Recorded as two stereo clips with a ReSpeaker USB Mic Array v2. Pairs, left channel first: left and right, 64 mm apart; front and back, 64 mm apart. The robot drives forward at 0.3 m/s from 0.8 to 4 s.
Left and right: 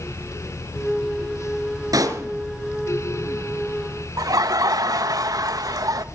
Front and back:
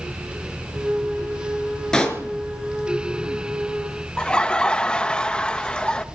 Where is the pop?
80° right, 4.5 m.